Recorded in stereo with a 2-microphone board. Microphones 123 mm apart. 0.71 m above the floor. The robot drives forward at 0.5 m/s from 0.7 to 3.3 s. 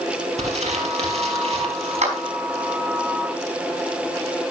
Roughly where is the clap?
Right.